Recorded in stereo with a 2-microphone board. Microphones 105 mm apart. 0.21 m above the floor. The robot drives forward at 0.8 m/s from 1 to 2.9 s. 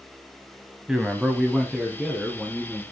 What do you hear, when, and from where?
0.9 s a man speaking: 5° right (ahead or behind), 1.0 m